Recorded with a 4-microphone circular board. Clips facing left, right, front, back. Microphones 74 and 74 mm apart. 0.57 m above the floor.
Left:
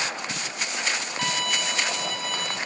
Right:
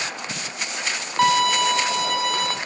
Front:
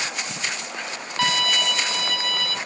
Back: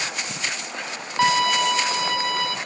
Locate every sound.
1.2 s a violin: 110° right, 1.1 m